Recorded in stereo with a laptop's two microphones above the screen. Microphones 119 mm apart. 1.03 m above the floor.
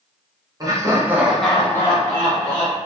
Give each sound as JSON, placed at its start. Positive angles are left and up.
{"t": 0.6, "sound": "laughter", "side_deg": -30, "distance_m": 0.8}